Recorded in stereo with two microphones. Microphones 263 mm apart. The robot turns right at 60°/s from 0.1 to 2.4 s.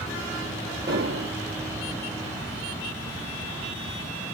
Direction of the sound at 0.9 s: 130° right.